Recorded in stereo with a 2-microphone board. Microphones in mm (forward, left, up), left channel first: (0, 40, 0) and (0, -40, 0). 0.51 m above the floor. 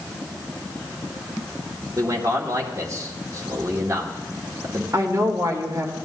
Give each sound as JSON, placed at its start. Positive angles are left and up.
{"t": 2.0, "sound": "a man speaking", "side_deg": -40, "distance_m": 1.5}
{"t": 4.9, "sound": "a woman speaking", "side_deg": -45, "distance_m": 1.9}